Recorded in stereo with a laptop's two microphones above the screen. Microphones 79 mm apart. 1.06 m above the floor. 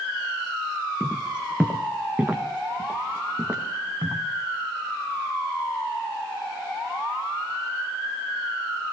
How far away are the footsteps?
About 2.5 m.